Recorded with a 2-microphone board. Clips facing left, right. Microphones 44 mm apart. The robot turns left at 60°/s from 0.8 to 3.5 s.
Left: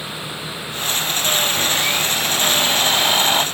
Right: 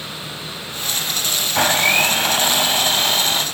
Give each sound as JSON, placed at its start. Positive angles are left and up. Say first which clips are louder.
{"t": 1.6, "sound": "a blender", "louder": "right 4 dB", "azimuth_deg": -100, "distance_m": 1.7}